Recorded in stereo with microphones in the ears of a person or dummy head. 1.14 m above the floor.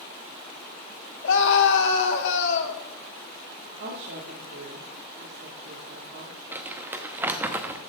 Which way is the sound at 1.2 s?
70° left (ahead or behind).